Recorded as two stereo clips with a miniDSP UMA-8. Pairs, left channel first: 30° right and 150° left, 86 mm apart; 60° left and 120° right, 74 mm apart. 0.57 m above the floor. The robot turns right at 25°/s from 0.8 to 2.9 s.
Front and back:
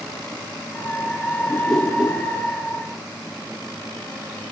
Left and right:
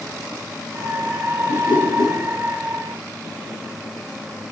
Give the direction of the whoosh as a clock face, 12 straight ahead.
10 o'clock.